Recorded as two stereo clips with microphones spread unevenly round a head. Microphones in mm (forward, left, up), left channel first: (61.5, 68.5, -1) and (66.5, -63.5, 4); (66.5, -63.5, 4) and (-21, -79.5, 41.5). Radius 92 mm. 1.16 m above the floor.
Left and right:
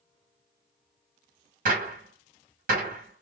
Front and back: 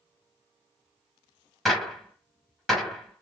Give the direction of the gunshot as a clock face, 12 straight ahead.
3 o'clock.